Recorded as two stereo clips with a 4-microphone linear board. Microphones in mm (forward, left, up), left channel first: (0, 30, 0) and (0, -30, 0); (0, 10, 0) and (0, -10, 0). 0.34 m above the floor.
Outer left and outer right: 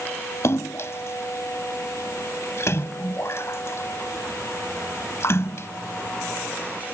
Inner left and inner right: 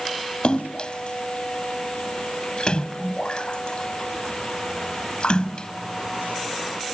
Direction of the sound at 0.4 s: 55° left (ahead or behind).